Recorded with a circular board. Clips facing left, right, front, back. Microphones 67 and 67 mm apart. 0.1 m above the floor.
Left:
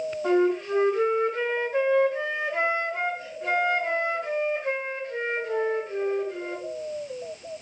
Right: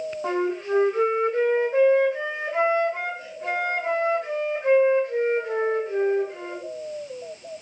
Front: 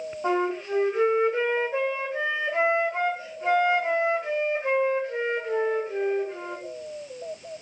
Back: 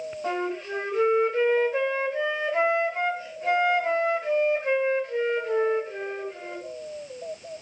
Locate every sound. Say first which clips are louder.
0.2 s a flute: left 3 dB, front 4 dB; 60° right, 5 m